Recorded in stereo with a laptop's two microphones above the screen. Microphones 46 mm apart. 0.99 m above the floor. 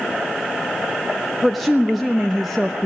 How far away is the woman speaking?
About 1.0 m.